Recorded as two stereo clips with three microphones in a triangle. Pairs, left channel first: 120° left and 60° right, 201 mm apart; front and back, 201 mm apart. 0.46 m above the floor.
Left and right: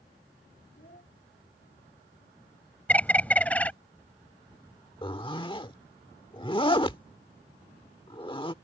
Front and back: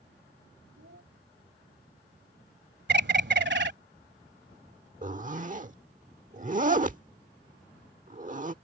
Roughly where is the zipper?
Behind.